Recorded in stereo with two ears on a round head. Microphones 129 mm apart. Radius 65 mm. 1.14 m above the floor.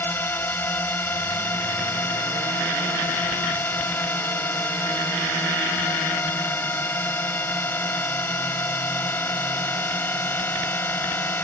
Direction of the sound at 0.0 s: 15° left (ahead or behind).